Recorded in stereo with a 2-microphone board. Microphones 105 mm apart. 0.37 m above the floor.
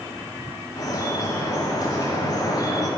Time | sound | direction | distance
0.8 | dripping | 35° left (ahead or behind) | 1.8 m